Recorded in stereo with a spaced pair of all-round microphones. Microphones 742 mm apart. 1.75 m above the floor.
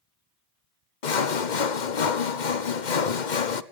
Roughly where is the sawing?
Left.